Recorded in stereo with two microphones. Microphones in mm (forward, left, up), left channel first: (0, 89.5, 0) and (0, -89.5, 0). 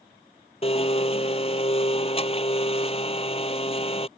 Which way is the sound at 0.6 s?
35° left (ahead or behind).